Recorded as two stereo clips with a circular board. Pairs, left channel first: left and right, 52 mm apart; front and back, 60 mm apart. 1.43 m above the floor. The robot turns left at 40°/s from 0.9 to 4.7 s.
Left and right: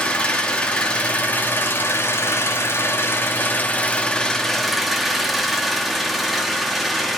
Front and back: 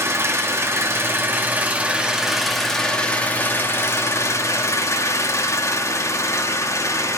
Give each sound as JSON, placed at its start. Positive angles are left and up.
{"t": 0.0, "sound": "an engine running", "azimuth_deg": 155, "distance_m": 1.1}